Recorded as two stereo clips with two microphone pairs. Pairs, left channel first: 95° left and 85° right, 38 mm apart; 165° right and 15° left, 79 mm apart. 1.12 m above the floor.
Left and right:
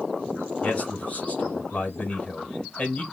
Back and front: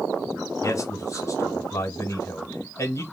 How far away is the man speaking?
About 1.1 m.